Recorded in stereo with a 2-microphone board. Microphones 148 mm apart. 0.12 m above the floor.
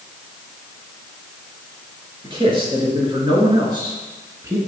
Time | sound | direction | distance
2.2 | a man speaking | 35° right (ahead or behind) | 2.5 m